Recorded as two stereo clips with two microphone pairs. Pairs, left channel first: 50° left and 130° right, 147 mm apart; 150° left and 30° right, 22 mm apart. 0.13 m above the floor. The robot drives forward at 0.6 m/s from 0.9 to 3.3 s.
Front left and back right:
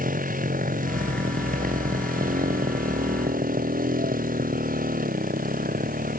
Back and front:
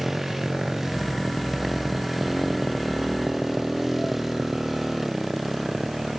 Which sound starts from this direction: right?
A motorcycle, at 0.0 s.